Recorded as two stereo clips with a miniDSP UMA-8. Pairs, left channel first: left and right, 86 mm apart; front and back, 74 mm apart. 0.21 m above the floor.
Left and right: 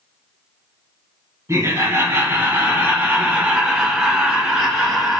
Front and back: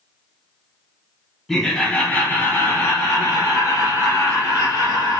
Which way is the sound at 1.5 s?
85° right.